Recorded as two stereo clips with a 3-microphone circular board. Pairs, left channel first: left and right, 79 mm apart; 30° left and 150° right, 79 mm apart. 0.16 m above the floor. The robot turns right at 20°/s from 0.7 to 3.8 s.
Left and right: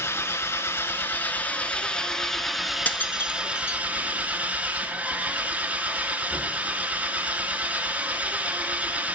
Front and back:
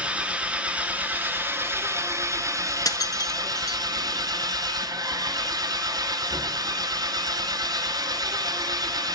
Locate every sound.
0.0 s an engine running: 140° left, 1.1 m; by 9.2 s 155° right, 1.1 m
2.9 s breaking glass: 25° left, 0.9 m; by 3.8 s 45° left, 0.9 m